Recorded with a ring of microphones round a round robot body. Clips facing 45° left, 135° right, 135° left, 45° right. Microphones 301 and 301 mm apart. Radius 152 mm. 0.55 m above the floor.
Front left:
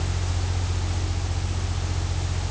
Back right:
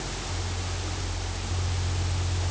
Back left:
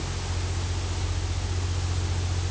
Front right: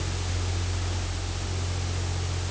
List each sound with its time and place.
Only background noise.